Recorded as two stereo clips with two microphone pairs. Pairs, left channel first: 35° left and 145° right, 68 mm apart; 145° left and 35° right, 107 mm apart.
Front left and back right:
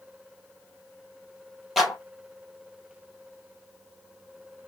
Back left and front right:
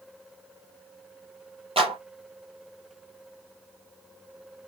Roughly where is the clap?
Ahead right.